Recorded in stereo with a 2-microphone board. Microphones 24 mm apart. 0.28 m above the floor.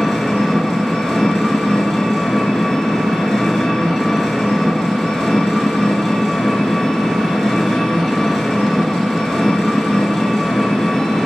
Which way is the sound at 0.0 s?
15° left (ahead or behind).